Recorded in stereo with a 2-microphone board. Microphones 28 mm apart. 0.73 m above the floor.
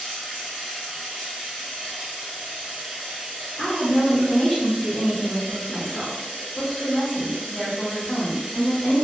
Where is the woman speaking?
35° left (ahead or behind), 1.1 m.